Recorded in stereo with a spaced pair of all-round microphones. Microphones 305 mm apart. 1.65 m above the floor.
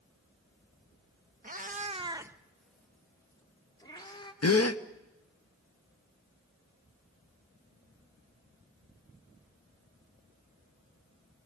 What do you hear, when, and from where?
1.4 s a cat meowing: 30° right (ahead or behind), 1.1 m; by 4.3 s 15° left (ahead or behind), 3 m
4.4 s a gasp: 55° left (ahead or behind), 1.0 m